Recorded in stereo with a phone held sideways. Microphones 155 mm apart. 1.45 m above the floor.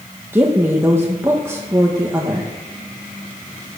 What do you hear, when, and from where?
0.3 s a woman speaking: 15° right (ahead or behind), 1.6 m